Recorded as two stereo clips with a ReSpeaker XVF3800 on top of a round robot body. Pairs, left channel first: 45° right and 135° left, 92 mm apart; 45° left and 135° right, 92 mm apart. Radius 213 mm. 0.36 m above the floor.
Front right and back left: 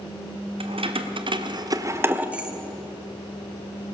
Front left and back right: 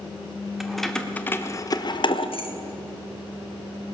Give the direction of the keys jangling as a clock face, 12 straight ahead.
7 o'clock.